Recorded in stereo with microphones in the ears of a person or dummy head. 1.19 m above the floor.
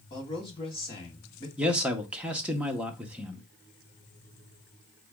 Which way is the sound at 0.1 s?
30° left (ahead or behind).